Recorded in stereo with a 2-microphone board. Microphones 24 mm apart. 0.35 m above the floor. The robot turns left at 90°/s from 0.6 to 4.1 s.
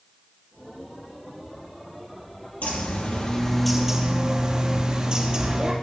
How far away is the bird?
About 4.5 m.